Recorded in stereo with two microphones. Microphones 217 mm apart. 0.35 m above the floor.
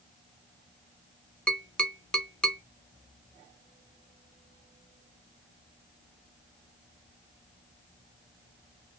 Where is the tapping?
5° left (ahead or behind), 0.7 m.